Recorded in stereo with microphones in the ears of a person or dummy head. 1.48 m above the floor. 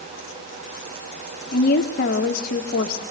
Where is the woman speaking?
50° left (ahead or behind), 1.5 m.